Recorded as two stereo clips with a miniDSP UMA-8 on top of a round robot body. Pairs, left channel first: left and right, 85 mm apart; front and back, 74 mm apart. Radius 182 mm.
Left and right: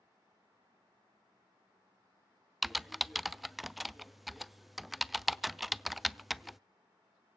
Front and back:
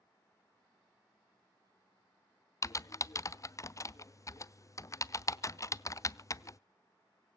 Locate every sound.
2.6 s typing on a keyboard: straight ahead, 0.6 m